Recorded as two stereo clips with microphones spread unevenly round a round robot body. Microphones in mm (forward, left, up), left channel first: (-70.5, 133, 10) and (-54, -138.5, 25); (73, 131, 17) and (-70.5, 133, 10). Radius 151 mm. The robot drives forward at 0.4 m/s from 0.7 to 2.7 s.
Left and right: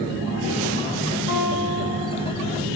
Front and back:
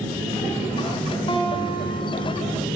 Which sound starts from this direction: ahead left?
A guitar, at 1.3 s.